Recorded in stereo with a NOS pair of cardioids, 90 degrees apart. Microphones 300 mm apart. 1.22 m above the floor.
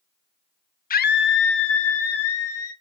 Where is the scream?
30° left, 0.6 m; by 2.7 s 55° left, 1.7 m.